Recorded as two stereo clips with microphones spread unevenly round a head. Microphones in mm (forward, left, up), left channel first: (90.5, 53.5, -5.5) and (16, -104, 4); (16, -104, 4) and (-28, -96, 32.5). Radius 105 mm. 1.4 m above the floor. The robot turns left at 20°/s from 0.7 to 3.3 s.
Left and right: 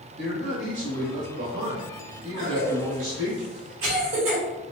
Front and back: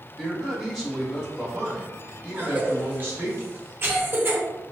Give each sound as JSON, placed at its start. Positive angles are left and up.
{"t": 0.2, "sound": "a man speaking", "azimuth_deg": -100, "distance_m": 1.9}
{"t": 2.3, "sound": "a cough", "azimuth_deg": -125, "distance_m": 1.5}